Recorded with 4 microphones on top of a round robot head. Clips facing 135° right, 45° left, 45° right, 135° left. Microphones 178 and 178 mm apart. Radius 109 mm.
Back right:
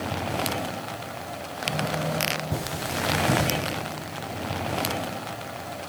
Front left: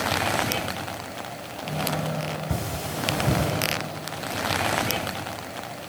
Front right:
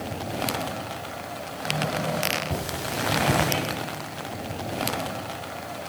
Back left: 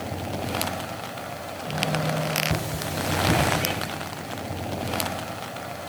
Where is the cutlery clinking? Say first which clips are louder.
Even, back left 1 dB; 45° left, 6.5 m.